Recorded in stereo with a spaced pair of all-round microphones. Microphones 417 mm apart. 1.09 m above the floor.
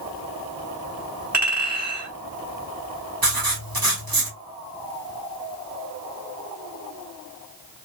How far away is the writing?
About 1.3 m.